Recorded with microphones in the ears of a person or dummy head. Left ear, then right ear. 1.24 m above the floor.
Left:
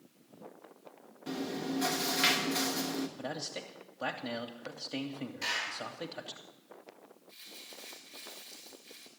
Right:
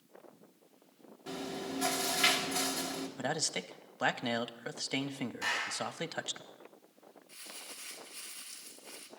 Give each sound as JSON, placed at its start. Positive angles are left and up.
{"t": 1.3, "sound": "chewing", "side_deg": 15, "distance_m": 1.2}
{"t": 3.2, "sound": "a man speaking", "side_deg": -55, "distance_m": 0.7}
{"t": 5.4, "sound": "a clap", "side_deg": 10, "distance_m": 4.5}
{"t": 7.3, "sound": "crumpling", "side_deg": -30, "distance_m": 1.5}